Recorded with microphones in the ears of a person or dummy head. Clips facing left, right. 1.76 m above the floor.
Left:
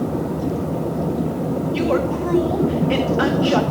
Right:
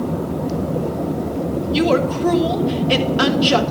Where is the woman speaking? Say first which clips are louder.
Right 4 dB; 50° right (ahead or behind), 1.4 m.